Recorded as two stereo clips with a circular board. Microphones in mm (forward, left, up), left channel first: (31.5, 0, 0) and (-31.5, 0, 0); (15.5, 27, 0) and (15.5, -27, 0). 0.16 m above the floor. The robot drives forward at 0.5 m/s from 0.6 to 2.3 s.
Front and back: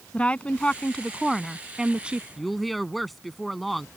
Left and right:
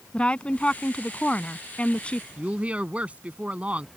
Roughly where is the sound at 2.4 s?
Right.